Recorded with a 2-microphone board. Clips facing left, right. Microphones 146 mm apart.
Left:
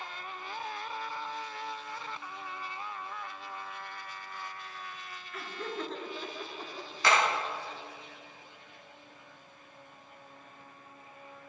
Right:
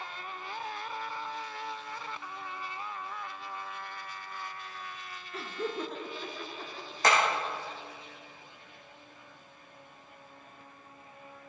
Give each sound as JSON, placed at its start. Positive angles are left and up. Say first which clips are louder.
{"t": 5.3, "sound": "laughter", "louder": "right 3 dB", "side_deg": -35, "distance_m": 1.2}
{"t": 7.0, "sound": "hammering", "louder": "right 1 dB", "side_deg": -45, "distance_m": 4.0}